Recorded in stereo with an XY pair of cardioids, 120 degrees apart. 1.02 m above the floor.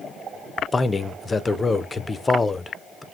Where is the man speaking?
20° left, 0.5 m.